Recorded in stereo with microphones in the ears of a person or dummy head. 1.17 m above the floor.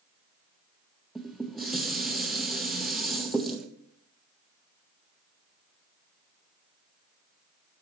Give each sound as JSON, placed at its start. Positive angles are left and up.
{"t": 1.1, "sound": "dishes clattering", "side_deg": -5, "distance_m": 0.5}